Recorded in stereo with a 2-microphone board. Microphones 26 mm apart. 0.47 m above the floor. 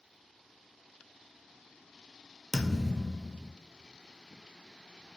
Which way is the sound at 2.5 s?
10° right (ahead or behind).